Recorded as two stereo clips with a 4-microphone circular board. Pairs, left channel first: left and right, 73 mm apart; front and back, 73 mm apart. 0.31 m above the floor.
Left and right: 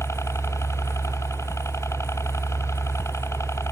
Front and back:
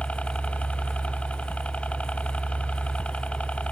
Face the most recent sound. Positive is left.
turn(degrees=65)